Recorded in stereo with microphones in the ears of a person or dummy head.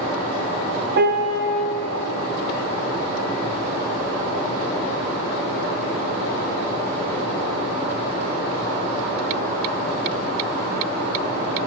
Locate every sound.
1.0 s a piano: 55° right (ahead or behind), 0.6 m